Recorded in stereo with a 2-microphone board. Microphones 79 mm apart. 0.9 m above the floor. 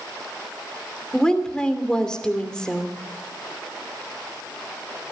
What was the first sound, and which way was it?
A woman speaking, 10° left (ahead or behind).